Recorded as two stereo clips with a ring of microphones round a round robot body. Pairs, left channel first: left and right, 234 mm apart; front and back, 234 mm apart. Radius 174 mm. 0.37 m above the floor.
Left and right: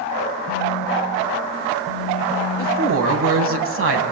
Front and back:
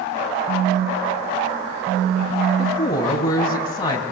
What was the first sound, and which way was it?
A phone buzzing, 120° left.